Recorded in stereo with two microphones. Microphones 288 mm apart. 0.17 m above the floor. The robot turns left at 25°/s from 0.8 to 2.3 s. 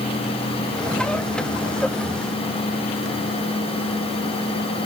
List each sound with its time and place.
Only background noise.